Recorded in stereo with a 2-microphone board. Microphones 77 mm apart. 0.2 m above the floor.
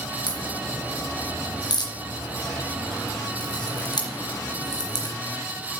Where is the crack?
65° left (ahead or behind), 3.5 m.